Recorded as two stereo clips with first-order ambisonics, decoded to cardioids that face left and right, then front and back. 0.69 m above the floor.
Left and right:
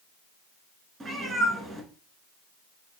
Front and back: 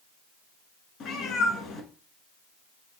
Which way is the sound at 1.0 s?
25° right.